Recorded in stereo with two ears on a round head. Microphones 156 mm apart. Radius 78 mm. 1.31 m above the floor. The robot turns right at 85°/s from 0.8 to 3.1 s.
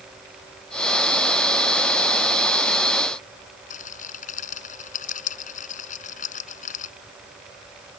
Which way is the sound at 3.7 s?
45° left (ahead or behind).